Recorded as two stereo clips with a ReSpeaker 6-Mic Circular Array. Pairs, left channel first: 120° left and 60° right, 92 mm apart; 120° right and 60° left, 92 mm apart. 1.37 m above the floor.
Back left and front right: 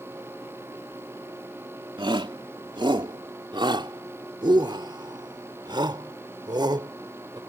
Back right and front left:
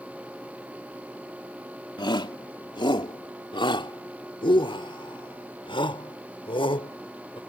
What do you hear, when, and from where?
2.0 s a shout: 90° right; by 7.4 s 100° right